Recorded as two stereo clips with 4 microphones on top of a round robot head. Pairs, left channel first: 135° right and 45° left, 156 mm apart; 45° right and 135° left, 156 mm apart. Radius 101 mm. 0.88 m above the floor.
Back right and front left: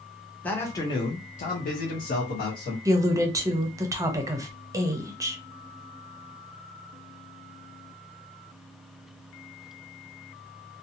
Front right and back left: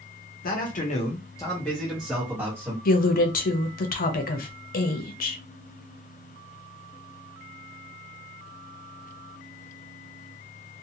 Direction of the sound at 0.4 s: 55° right.